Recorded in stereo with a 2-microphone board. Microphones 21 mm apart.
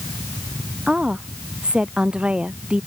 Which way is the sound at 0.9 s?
50° right (ahead or behind).